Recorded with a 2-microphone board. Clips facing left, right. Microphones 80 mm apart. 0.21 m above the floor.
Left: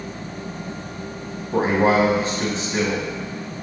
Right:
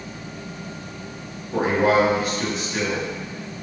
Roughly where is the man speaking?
Left.